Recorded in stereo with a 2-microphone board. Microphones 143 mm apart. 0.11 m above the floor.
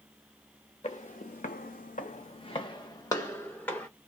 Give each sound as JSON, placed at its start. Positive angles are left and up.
{"t": 0.8, "sound": "footsteps", "side_deg": 50, "distance_m": 0.8}